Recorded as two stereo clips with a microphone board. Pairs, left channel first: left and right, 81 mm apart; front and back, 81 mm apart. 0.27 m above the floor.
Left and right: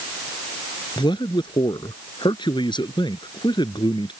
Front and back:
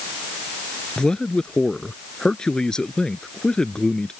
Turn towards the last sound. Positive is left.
turn(degrees=80)